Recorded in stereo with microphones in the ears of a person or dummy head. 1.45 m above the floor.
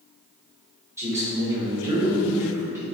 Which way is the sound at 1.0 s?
10° right (ahead or behind).